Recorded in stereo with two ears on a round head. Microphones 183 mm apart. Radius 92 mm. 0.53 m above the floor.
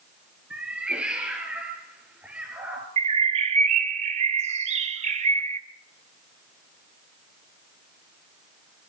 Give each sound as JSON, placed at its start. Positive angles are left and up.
{"t": 0.5, "sound": "a cat meowing", "side_deg": -5, "distance_m": 3.5}
{"t": 3.0, "sound": "a bird", "side_deg": -30, "distance_m": 1.0}